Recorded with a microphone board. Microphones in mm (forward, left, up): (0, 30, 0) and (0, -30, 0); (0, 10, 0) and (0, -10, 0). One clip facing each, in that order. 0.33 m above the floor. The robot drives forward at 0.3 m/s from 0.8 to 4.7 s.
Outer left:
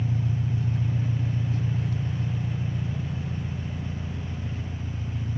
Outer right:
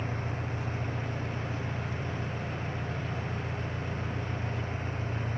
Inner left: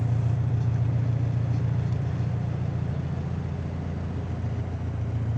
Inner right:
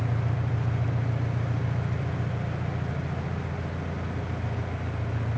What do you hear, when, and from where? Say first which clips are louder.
0.0 s an engine running: outer left 5 dB, inner left 1 dB; 60° left (ahead or behind), 1.8 m; by 5.4 s 50° left (ahead or behind), 2 m